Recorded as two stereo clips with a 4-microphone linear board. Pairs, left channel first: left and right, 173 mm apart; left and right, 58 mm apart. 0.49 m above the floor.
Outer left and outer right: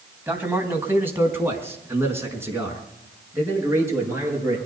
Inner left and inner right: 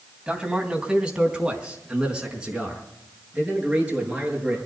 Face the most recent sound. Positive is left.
turn(degrees=-15)  # may be behind; listen again after turning